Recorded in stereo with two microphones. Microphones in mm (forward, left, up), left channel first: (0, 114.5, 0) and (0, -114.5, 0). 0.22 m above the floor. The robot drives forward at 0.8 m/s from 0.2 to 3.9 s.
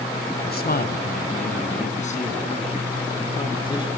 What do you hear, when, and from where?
0.4 s a man speaking: 45° left (ahead or behind), 1.7 m; by 3.9 s 20° left (ahead or behind), 3.5 m